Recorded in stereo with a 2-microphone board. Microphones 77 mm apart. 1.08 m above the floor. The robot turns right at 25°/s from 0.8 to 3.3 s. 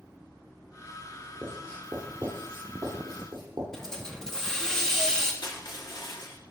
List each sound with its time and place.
1.4 s writing: 5° right (ahead or behind), 8 m; by 3.6 s 55° right (ahead or behind), 8 m
3.7 s a hiss: 5° left (ahead or behind), 2 m
5.4 s crushing: 65° left (ahead or behind), 2.5 m